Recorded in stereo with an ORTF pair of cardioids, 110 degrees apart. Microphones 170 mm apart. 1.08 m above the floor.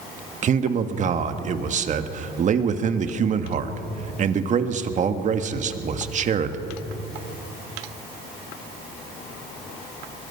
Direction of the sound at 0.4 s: 45° right.